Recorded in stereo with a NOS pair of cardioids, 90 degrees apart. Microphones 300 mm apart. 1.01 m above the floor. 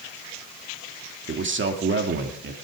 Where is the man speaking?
40° right, 2 m.